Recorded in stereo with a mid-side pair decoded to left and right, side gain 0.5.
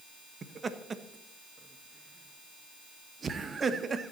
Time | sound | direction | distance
0.4 | laughter | 35° right | 1.2 m